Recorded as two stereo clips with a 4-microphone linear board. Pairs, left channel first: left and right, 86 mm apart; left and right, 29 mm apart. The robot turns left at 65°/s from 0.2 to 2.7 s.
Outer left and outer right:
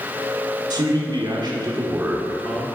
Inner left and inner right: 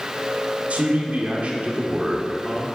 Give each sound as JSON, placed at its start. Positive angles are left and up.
{"t": 0.7, "sound": "a man speaking", "azimuth_deg": -65, "distance_m": 1.7}